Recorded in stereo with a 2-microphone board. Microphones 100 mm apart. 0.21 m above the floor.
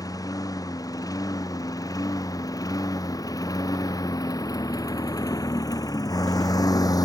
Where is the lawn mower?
35° left (ahead or behind); by 7.1 s 40° left (ahead or behind).